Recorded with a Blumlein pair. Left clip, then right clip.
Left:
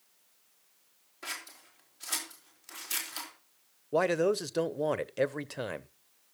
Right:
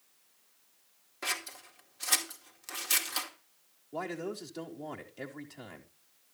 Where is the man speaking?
55° left, 0.7 m.